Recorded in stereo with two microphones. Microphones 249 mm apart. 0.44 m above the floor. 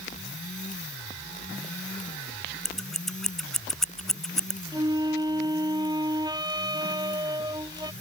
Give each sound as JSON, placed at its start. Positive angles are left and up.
{"t": 2.6, "sound": "scissors", "side_deg": 0}
{"t": 4.7, "sound": "a flute", "side_deg": -15}